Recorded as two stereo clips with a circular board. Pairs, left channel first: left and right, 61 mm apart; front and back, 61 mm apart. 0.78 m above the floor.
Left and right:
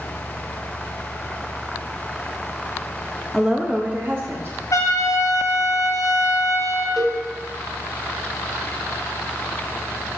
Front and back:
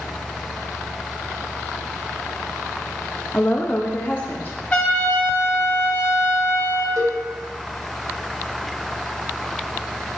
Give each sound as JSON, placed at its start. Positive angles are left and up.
{"t": 3.3, "sound": "a woman speaking", "azimuth_deg": -5, "distance_m": 0.8}
{"t": 4.7, "sound": "a trumpet", "azimuth_deg": 65, "distance_m": 3.0}
{"t": 7.0, "sound": "a cowbell", "azimuth_deg": -175, "distance_m": 1.5}